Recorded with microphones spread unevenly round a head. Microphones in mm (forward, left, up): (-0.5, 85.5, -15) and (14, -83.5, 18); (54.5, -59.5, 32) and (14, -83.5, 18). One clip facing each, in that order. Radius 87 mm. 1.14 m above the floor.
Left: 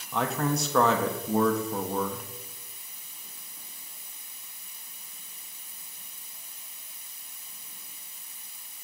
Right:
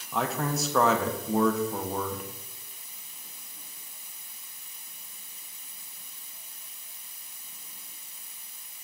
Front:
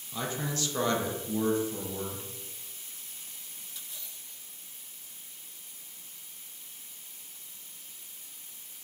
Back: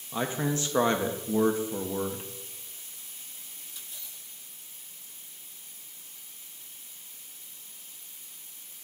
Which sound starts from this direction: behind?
A man speaking, at 0.1 s.